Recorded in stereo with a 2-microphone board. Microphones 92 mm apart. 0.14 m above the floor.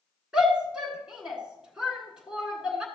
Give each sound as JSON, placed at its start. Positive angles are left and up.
{"t": 0.3, "sound": "a shout", "side_deg": -10, "distance_m": 1.3}